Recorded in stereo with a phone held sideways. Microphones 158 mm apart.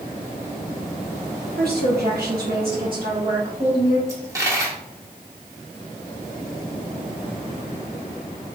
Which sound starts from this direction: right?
A woman speaking, at 1.6 s.